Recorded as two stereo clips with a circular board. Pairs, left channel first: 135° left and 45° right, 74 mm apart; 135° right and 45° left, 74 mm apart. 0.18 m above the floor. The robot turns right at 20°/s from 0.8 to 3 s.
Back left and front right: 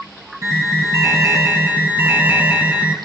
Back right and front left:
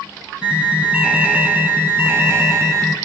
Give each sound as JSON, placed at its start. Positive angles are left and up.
{"t": 0.4, "sound": "an alarm", "azimuth_deg": -25, "distance_m": 3.0}